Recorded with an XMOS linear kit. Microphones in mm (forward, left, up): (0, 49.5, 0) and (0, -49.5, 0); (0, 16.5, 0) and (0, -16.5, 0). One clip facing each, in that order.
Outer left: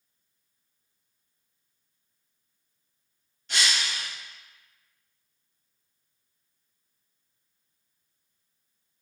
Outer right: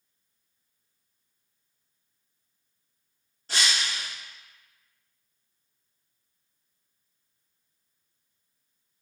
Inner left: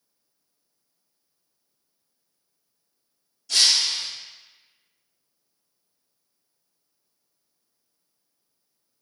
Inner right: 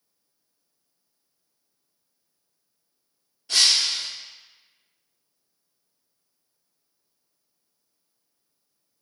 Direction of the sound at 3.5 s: 35° right (ahead or behind).